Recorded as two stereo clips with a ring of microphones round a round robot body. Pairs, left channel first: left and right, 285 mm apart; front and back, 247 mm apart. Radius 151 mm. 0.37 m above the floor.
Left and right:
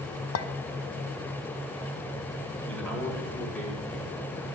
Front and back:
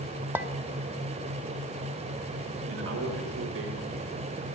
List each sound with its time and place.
0.3 s a clink: 100° left, 0.7 m
2.7 s a man speaking: 175° left, 1.5 m